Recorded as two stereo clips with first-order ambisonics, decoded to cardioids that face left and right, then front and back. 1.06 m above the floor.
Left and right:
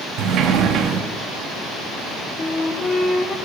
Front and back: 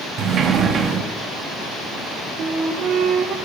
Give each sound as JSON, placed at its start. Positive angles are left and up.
{"t": 0.2, "sound": "a sliding door", "azimuth_deg": -125, "distance_m": 0.6}
{"t": 2.4, "sound": "a flute", "azimuth_deg": 155, "distance_m": 0.5}